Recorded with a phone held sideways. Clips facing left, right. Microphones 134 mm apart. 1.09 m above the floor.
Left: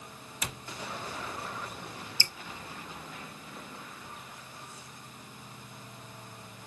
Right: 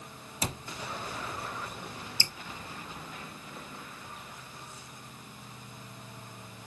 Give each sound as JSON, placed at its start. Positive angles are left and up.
{"t": 0.4, "sound": "a cupboard door", "side_deg": -30, "distance_m": 0.8}
{"t": 2.2, "sound": "dripping", "side_deg": -20, "distance_m": 0.8}